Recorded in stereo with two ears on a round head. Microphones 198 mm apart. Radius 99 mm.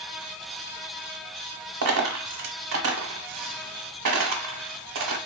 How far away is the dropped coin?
About 0.8 m.